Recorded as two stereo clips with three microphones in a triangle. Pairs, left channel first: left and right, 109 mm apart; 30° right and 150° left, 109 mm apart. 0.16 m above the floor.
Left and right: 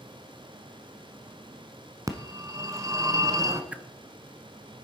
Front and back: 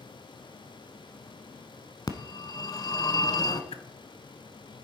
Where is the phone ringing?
55° right, 0.9 m.